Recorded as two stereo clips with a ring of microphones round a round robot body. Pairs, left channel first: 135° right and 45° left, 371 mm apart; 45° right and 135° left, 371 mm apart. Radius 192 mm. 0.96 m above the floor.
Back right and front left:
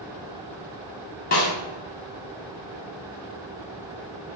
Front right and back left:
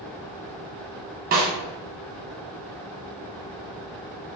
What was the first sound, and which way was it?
A snare drum, straight behind.